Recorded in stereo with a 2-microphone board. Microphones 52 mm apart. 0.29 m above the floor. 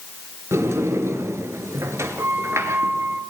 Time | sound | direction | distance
0.5 | a sliding door | 65° right (ahead or behind) | 1.5 m